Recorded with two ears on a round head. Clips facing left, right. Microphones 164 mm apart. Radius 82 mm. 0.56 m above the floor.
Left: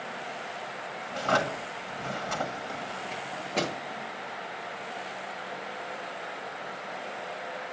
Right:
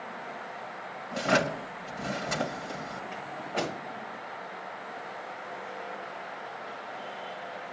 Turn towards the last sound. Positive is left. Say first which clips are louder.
# left 2 dB
turn(degrees=55)  # may be behind; listen again after turning